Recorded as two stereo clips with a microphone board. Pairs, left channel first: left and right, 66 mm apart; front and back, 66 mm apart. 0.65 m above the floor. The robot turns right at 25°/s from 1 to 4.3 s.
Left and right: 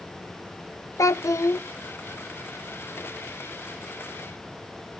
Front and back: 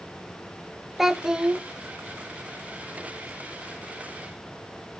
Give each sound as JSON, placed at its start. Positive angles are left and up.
{"t": 1.0, "sound": "a child speaking", "azimuth_deg": 95, "distance_m": 0.7}